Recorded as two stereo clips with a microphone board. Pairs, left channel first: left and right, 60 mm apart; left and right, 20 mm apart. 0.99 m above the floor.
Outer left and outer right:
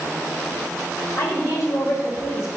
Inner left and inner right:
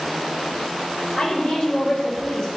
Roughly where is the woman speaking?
Left.